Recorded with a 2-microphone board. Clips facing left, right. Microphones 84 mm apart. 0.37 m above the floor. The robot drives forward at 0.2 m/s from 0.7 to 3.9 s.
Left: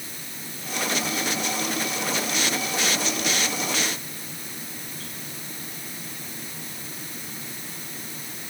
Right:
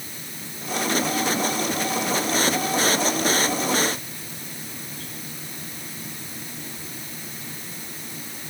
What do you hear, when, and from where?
Only background noise.